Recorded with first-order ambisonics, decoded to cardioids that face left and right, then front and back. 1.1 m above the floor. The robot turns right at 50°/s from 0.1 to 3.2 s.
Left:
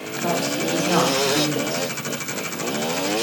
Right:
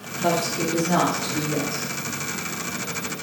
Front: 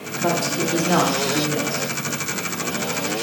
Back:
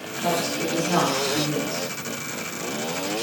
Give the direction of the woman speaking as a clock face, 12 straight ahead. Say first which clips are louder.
Even, front 3 dB; 12 o'clock.